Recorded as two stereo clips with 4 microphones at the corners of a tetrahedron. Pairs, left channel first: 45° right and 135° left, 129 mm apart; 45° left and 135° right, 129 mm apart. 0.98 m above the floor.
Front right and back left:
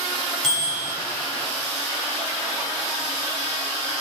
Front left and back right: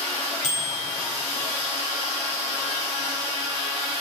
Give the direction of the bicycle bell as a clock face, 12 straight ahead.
11 o'clock.